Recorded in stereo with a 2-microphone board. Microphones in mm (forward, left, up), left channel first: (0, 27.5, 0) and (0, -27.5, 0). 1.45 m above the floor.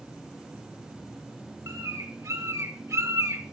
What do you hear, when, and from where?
1.7 s a bird: 65° right (ahead or behind), 2.5 m